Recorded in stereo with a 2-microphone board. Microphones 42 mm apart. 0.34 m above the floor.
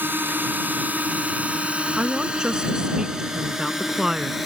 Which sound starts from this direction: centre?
A woman speaking, at 2.0 s.